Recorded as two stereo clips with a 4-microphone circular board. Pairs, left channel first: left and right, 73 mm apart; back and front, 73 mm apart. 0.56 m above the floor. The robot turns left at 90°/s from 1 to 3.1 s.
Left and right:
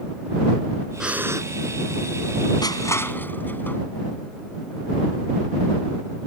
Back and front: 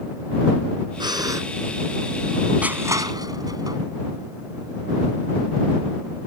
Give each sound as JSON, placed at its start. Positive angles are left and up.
{"t": 1.0, "sound": "breathing", "azimuth_deg": -10}
{"t": 2.6, "sound": "crushing", "azimuth_deg": 70}